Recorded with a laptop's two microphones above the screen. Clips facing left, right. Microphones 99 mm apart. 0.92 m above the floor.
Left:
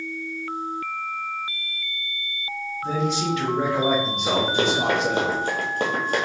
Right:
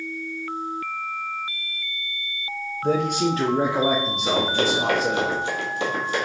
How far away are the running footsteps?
About 1.7 m.